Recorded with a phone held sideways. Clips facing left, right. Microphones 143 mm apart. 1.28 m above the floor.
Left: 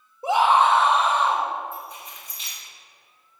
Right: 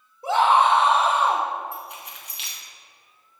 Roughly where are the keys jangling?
Right.